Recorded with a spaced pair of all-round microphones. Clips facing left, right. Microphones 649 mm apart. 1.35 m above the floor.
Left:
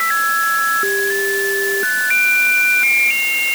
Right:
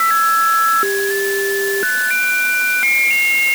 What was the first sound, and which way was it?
Only background noise.